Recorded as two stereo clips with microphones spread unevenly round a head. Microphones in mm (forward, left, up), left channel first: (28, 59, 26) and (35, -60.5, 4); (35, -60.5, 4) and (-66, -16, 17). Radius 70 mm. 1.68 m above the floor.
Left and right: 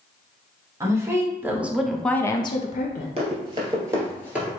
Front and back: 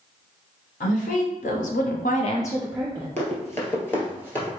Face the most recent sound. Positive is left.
turn(degrees=15)